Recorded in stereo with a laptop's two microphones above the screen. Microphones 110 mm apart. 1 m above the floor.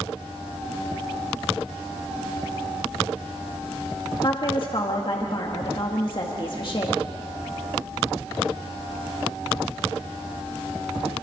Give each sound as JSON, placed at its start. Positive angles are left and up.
{"t": 4.2, "sound": "a woman speaking", "side_deg": 50, "distance_m": 1.8}